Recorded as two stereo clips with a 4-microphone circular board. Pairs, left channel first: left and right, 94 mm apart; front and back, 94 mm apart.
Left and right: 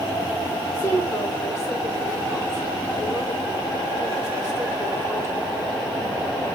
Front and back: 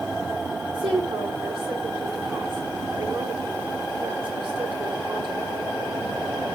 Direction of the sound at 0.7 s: 155° left.